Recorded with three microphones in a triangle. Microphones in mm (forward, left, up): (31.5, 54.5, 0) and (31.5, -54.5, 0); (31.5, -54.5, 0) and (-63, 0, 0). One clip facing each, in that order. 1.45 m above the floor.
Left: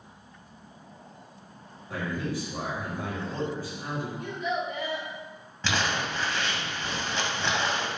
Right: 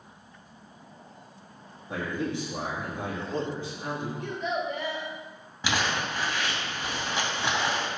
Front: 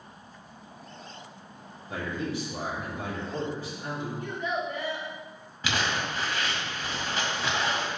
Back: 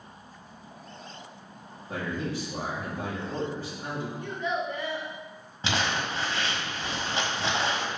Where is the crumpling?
165° right, 1.7 m.